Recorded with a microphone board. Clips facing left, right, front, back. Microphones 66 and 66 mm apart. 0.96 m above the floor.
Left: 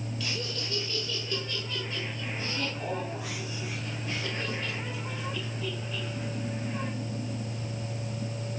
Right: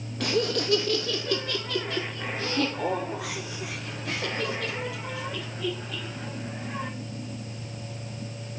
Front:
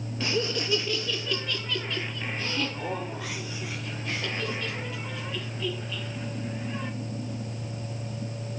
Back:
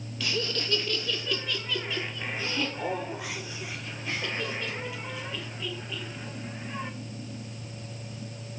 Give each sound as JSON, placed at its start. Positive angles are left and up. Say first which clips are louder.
{"t": 0.2, "sound": "laughter", "louder": "right 14 dB, front 3 dB", "azimuth_deg": -60, "distance_m": 0.7}